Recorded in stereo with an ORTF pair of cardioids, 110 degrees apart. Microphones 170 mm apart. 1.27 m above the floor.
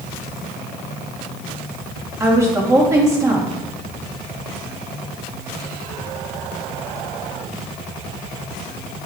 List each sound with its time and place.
2.2 s a woman speaking: 15° right, 2.5 m